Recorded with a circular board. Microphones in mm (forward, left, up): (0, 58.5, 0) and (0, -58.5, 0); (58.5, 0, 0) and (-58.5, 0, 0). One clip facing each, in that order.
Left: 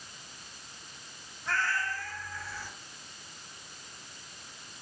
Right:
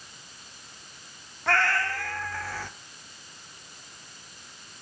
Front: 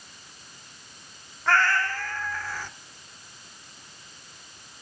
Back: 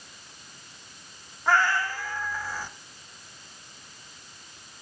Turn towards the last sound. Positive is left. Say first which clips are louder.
# right 7 dB, even
turn(degrees=-100)